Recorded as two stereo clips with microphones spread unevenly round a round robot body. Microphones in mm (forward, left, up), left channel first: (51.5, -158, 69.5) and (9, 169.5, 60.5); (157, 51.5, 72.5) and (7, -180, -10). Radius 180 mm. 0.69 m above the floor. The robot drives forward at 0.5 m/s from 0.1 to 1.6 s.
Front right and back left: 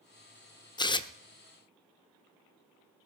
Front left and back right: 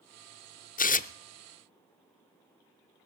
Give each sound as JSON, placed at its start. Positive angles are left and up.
{"t": 0.8, "sound": "tearing paper", "azimuth_deg": -5, "distance_m": 0.7}